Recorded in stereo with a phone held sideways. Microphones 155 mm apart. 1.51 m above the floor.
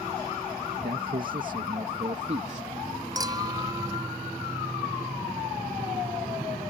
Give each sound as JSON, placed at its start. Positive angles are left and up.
{"t": 0.8, "sound": "a man speaking", "side_deg": -70}
{"t": 3.1, "sound": "a clink", "side_deg": -25}